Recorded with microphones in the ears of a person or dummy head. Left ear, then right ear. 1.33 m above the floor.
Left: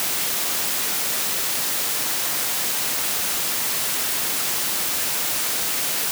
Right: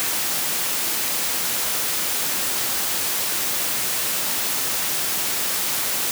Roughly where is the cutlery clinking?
No cutlery clinking in this recording.